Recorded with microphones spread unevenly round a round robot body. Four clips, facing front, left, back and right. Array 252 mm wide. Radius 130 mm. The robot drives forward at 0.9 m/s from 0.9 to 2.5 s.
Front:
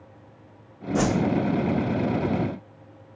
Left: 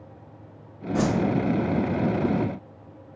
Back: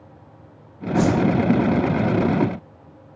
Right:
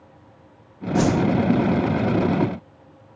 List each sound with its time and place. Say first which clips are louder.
0.9 s a whoosh: right 4 dB, back 4 dB; straight ahead, 1.7 m; by 1.2 s 5° left, 1.5 m